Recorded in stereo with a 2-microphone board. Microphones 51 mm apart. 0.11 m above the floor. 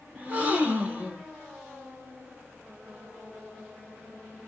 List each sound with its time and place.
0.1 s a gasp: 25° right (ahead or behind), 1.6 m